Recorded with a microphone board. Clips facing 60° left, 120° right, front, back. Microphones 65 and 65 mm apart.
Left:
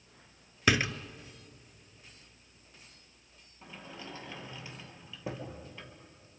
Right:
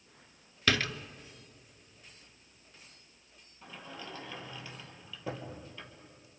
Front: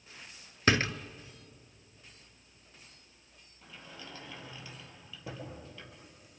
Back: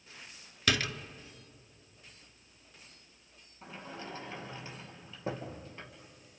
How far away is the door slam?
About 0.8 m.